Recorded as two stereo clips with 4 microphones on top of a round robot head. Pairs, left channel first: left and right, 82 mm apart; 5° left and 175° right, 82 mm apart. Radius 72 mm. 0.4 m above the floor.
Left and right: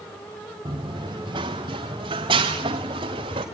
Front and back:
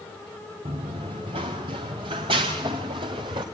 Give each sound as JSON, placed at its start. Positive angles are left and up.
{"t": 0.7, "sound": "running footsteps", "azimuth_deg": -140, "distance_m": 1.7}